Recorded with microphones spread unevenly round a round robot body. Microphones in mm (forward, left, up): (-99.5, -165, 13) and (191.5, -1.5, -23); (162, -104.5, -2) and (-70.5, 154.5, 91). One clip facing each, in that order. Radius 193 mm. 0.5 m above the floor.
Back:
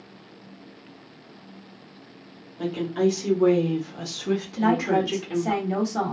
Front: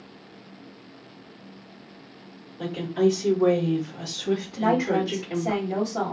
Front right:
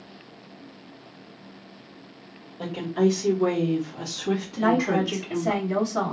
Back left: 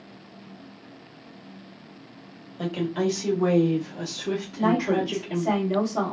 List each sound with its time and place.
2.6 s a woman speaking: 155° left, 1.2 m; by 5.6 s 95° right, 1.7 m
4.6 s a woman speaking: 90° right, 1.5 m